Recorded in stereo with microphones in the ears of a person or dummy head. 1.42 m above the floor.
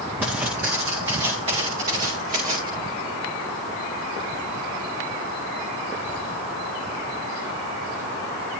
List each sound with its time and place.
0.2 s footsteps: 10° right (ahead or behind), 7 m; by 2.7 s 35° right (ahead or behind), 8 m